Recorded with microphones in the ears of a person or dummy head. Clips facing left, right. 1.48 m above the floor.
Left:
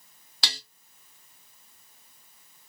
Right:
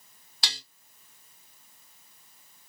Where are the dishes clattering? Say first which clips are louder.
Left 2 dB; 55° left (ahead or behind), 0.7 m.